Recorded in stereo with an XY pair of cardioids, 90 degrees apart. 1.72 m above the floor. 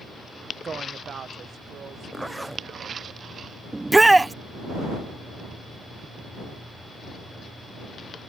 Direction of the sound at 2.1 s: 10° right.